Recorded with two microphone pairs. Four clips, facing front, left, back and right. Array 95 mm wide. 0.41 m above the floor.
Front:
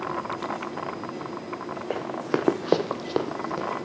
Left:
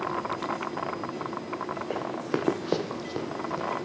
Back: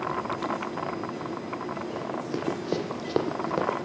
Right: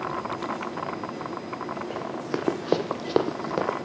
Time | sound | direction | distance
1.9 | running footsteps | 10° left | 1.9 m